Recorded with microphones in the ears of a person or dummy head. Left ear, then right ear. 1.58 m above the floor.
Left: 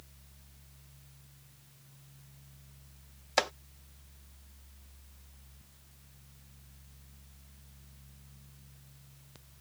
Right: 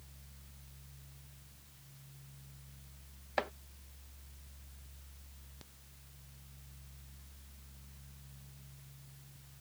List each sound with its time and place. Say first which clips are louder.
3.4 s chopping: left 7 dB; 90° left